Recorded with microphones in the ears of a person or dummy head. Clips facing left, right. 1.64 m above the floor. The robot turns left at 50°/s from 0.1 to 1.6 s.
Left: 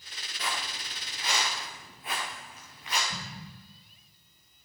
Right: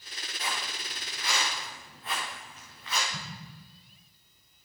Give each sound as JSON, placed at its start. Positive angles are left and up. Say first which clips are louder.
{"t": 0.4, "sound": "footsteps", "louder": "left 1 dB", "side_deg": 65, "distance_m": 7.0}
{"t": 3.1, "sound": "an explosion", "louder": "left 1 dB", "side_deg": 15, "distance_m": 2.0}